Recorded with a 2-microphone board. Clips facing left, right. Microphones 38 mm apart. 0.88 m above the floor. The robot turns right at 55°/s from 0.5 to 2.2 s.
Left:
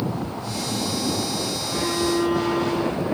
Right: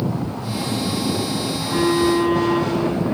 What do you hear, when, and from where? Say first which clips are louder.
1.5 s a phone buzzing: right 9 dB; 85° right, 3 m; by 2.8 s 50° right, 3 m